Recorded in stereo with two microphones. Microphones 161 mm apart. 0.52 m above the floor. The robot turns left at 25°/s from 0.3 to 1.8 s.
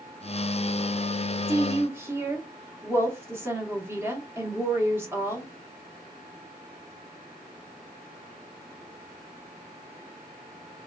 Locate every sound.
1.5 s a woman speaking: 20° right (ahead or behind), 0.9 m; by 5.5 s 15° right (ahead or behind), 0.9 m